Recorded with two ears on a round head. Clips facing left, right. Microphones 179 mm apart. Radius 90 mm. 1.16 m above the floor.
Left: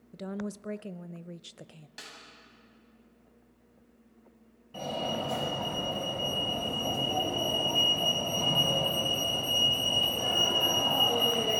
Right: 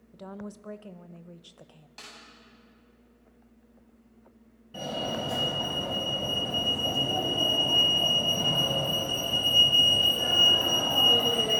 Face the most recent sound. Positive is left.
turn(degrees=-10)  # may be behind; listen again after turning